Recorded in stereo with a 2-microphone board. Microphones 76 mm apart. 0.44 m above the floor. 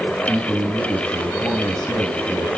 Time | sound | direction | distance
0.3 | a man speaking | 5° left (ahead or behind) | 3 m